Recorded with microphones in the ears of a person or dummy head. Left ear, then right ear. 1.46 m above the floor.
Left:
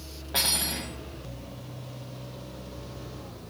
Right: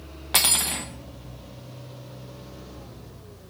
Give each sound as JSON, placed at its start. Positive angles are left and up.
{"t": 0.3, "sound": "cutlery clinking", "side_deg": -25, "distance_m": 0.6}